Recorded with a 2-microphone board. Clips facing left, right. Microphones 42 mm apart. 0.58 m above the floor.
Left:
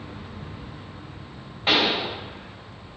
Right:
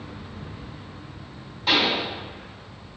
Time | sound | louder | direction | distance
1.7 | a pop | even | 30° left (ahead or behind) | 3 m